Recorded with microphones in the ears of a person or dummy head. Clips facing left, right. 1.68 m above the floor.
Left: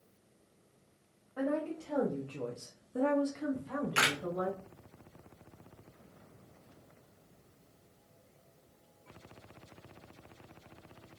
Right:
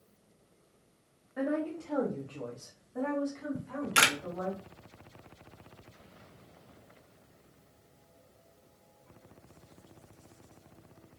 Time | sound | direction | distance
1.4 | a woman speaking | 15° right (ahead or behind) | 0.8 m
3.5 | a camera shutter | 50° right (ahead or behind) | 0.5 m